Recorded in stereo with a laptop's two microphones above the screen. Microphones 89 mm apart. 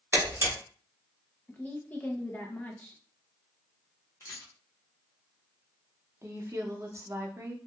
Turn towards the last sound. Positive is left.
turn(degrees=-35)  # may be behind; listen again after turning